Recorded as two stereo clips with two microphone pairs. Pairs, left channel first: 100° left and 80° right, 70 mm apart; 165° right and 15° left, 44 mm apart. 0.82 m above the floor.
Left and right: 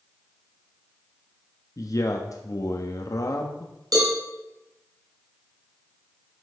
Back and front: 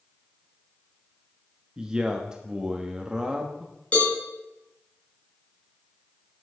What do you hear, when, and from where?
1.8 s a man speaking: 85° left, 1.1 m
3.9 s a cowbell: 105° right, 3.5 m